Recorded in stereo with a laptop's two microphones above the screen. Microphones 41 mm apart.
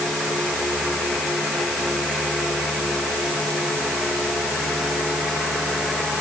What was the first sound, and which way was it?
Only background noise.